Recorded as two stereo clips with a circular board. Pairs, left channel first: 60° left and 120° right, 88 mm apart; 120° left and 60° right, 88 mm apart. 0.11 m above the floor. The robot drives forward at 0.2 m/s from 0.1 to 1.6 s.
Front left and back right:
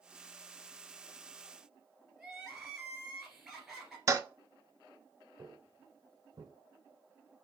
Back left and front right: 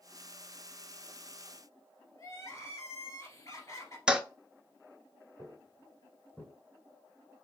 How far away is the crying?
About 1.8 m.